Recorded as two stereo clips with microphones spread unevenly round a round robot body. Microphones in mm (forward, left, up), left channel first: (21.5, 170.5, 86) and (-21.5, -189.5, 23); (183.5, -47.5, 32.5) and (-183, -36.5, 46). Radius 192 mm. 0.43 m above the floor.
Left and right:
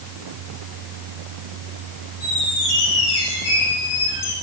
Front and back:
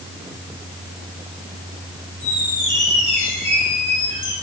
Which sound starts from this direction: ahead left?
A squeak, at 2.2 s.